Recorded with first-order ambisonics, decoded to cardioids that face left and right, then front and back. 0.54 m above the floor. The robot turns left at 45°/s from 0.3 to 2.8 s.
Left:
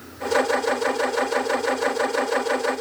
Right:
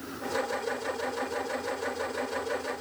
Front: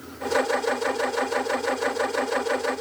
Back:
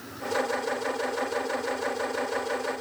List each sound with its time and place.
Only background noise.